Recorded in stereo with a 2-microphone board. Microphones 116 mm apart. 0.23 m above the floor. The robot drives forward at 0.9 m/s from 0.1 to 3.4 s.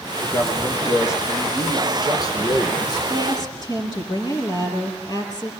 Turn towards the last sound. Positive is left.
turn(degrees=35)  # may be behind; listen again after turning